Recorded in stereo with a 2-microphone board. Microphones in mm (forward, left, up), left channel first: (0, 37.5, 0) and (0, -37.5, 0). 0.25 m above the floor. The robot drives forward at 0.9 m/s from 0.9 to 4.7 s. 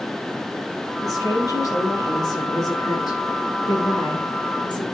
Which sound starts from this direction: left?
A woman speaking, at 1.0 s.